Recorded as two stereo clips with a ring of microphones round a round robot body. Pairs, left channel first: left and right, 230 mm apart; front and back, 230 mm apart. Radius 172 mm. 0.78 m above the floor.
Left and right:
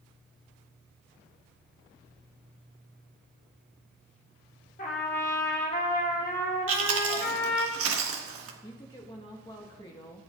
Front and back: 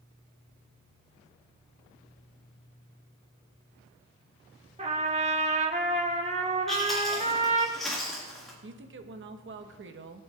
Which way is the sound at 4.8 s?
130° left.